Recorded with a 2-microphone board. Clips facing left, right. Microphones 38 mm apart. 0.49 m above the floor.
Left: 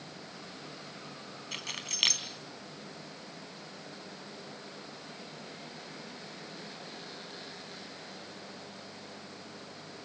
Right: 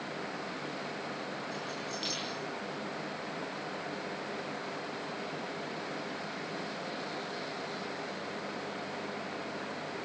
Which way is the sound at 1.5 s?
75° left (ahead or behind).